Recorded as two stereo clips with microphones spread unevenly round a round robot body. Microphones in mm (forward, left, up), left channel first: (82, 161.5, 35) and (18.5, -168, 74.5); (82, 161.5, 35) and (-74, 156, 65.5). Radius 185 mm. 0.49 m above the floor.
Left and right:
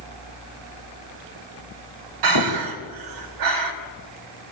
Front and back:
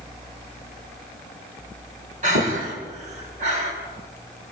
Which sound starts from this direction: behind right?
Breathing, at 2.2 s.